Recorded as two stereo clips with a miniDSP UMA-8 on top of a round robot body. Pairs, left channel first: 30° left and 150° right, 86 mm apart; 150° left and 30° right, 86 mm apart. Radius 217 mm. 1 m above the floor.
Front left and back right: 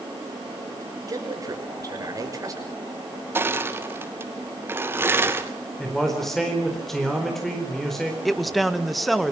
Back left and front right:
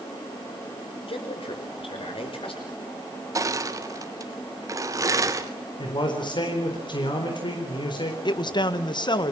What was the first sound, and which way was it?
A man speaking, 160° left.